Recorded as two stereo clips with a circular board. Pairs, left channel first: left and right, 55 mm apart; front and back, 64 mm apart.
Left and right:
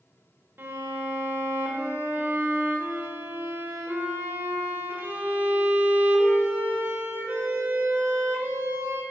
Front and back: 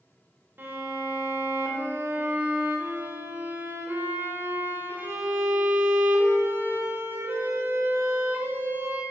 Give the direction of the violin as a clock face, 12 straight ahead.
4 o'clock.